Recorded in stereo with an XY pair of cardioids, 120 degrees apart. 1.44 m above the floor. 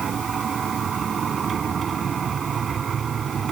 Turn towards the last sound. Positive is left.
turn(degrees=-40)